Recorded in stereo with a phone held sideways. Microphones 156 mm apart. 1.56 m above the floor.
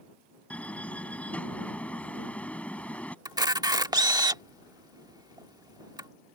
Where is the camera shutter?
25° right (ahead or behind).